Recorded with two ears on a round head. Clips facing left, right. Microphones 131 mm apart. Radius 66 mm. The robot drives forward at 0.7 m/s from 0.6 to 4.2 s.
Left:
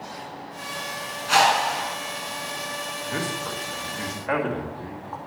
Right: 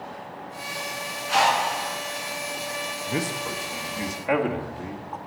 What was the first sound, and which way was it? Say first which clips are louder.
A whoosh: left 2 dB; 65° left (ahead or behind).